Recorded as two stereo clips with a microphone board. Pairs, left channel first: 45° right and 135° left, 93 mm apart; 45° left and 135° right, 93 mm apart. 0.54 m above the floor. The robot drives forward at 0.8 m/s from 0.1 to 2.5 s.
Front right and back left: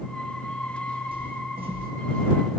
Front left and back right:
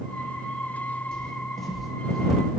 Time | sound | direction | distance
1.1 | footsteps | 125° left | 1.6 m